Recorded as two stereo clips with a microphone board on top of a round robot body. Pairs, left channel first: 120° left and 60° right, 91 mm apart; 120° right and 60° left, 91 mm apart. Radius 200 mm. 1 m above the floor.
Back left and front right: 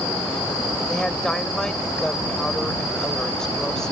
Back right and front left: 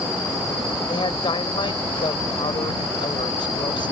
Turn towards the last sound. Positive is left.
turn(degrees=-155)